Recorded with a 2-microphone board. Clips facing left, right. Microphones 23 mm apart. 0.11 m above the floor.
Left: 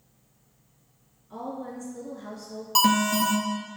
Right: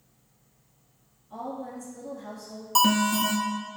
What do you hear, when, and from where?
1.3 s a woman speaking: 25° left (ahead or behind), 1.4 m
2.8 s an alarm: 20° left (ahead or behind), 1.1 m